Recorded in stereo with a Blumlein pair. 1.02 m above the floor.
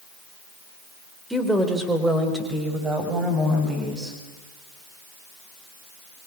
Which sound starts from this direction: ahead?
A woman speaking, at 1.3 s.